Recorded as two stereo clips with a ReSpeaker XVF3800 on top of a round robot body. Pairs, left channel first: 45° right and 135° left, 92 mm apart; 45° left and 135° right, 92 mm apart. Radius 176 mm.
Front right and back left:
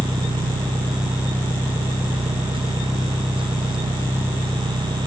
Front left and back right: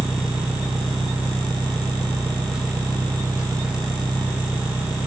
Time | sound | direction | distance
0.0 | an engine running | 145° left | 1.8 m